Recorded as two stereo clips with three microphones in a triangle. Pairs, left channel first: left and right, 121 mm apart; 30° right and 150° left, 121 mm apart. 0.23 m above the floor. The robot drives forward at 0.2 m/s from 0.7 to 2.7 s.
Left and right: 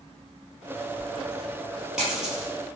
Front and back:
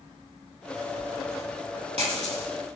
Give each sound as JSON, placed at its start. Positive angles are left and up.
{"t": 1.0, "sound": "a dropped coin", "azimuth_deg": -170, "distance_m": 1.7}